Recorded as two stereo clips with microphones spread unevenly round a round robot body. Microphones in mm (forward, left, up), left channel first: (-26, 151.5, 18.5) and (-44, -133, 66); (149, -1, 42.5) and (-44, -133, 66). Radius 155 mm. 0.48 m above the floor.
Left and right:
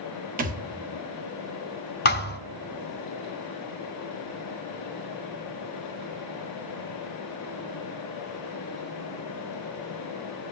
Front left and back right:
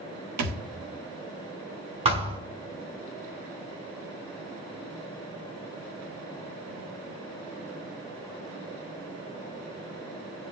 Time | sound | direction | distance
0.4 | a thud | 155° right | 1.0 m
2.0 | a thud | 145° left | 0.6 m